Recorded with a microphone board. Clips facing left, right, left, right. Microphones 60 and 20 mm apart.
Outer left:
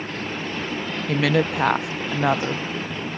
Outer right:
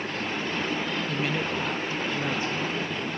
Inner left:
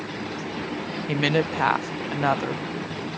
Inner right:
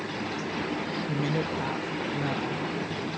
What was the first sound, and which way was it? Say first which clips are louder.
A woman speaking: outer left 7 dB, inner left 9 dB; 75° left (ahead or behind).